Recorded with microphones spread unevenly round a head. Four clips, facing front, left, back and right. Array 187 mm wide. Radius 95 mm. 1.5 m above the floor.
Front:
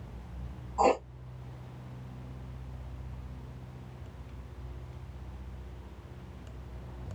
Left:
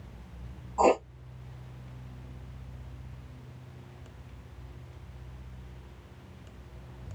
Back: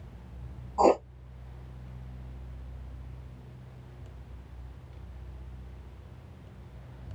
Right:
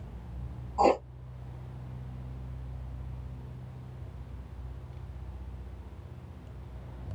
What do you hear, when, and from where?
0.8 s writing: 165° left, 0.5 m